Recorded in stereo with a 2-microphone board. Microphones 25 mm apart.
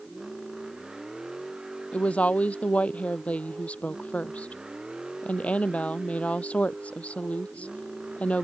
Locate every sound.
0.0 s a vehicle: 20° right (ahead or behind); by 8.4 s 40° right (ahead or behind)
1.9 s a woman speaking: 65° left (ahead or behind)